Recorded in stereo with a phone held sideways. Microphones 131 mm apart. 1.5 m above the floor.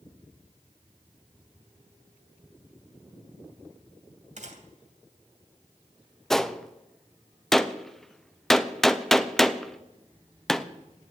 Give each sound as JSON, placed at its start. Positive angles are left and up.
{"t": 4.4, "sound": "a gunshot", "side_deg": -65, "distance_m": 2.5}
{"t": 6.3, "sound": "a gunshot", "side_deg": 0, "distance_m": 0.7}